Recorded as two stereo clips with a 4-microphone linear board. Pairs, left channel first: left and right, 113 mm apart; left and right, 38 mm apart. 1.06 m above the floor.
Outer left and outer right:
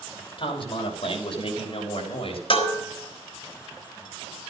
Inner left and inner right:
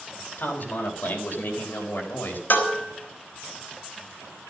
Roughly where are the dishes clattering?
Left.